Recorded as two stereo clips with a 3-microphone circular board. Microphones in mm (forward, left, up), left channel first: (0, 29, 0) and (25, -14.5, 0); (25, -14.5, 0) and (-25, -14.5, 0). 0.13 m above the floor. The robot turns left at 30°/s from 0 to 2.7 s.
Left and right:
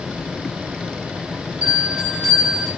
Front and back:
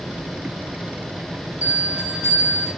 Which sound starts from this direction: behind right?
A bell, at 1.6 s.